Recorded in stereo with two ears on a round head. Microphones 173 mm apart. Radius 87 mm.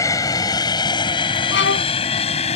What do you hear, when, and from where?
0.0 s an aircraft: 15° left (ahead or behind); by 2.6 s 35° left (ahead or behind)
1.5 s a violin: 70° left (ahead or behind)